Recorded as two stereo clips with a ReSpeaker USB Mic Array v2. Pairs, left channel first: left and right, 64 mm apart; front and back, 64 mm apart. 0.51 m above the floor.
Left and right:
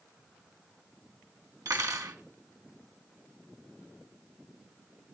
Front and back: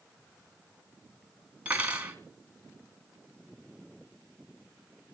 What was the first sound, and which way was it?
Cutlery clinking, 110° right.